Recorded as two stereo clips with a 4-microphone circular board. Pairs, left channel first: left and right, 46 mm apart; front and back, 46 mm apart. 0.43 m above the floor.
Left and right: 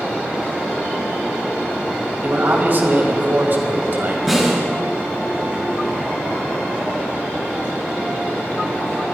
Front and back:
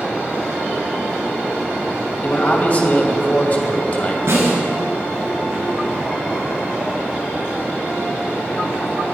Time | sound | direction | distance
2.2 | a man speaking | 50° right | 2.5 m
4.3 | a snare drum | straight behind | 6.5 m